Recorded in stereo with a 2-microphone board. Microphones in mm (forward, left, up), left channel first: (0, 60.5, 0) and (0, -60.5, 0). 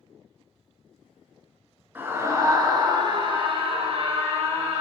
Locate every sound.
1.9 s a scream: 20° right (ahead or behind), 1.4 m; by 4.8 s 65° right (ahead or behind), 2 m